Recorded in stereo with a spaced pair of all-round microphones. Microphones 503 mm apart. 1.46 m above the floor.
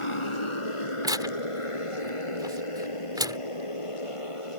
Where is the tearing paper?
5° right (ahead or behind).